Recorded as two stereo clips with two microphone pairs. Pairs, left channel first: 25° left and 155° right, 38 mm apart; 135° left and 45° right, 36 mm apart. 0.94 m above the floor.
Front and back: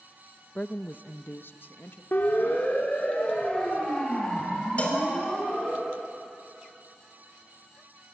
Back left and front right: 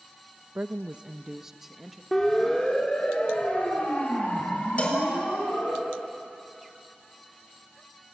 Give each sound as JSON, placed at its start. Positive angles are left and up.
{"t": 0.6, "sound": "a woman speaking", "azimuth_deg": -25, "distance_m": 0.6}
{"t": 2.1, "sound": "a siren", "azimuth_deg": 50, "distance_m": 2.5}
{"t": 4.8, "sound": "a cowbell", "azimuth_deg": 80, "distance_m": 4.0}